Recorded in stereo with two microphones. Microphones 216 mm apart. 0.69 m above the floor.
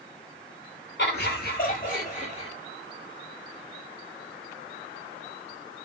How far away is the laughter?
About 1.9 m.